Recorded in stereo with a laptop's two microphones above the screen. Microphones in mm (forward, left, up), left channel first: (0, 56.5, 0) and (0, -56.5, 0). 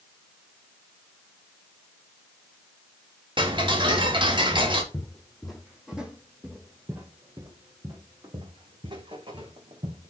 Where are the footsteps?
10° left (ahead or behind), 2.5 m; by 10.1 s 55° right (ahead or behind), 3.5 m.